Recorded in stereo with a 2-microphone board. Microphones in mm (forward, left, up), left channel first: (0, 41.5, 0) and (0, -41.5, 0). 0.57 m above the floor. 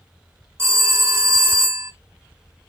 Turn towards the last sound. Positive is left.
turn(degrees=-25)  # may be behind; listen again after turning